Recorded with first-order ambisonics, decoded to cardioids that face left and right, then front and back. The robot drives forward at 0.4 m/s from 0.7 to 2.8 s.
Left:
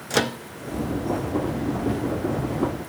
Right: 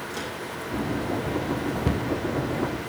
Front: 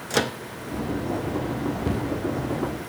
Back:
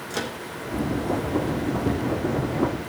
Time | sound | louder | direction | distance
0.1 | a microwave | left 14 dB, front 6 dB | 60° left | 0.9 m
1.9 | a cupboard door | left 3 dB, back 2 dB | 80° right | 3.5 m